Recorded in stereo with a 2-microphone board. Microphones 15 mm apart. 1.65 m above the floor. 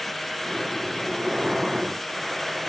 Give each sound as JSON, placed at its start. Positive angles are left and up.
{"t": 0.4, "sound": "breathing", "side_deg": -20, "distance_m": 1.5}